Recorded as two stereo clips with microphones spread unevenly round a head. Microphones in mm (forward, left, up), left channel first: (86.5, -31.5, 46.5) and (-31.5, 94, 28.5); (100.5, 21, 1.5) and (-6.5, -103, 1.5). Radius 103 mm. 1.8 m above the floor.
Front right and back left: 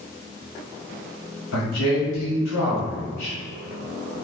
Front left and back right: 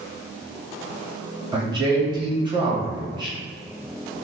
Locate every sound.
1.5 s a man speaking: 70° right, 1.5 m